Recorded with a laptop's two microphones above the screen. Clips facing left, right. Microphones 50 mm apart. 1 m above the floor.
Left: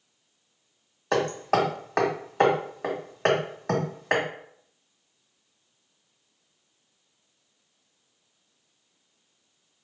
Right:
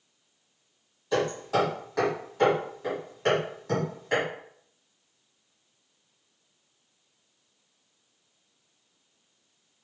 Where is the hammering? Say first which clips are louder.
Left 2 dB; 60° left (ahead or behind), 1.6 m.